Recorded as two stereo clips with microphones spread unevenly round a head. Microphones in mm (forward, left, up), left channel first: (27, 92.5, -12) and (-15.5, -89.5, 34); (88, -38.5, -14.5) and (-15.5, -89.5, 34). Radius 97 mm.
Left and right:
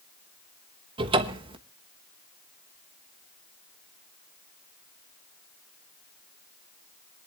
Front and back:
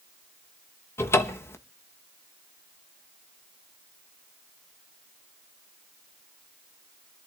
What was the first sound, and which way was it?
A cupboard door, 55° right.